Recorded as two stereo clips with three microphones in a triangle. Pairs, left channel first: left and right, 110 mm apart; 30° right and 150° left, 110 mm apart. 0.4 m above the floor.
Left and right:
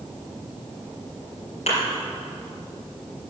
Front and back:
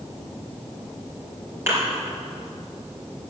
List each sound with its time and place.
1.7 s a thud: 80° left, 4.5 m